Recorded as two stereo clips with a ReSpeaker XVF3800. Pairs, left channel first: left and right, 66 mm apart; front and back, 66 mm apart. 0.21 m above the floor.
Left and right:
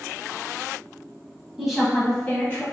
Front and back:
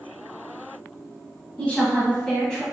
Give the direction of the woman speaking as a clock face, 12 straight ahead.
1 o'clock.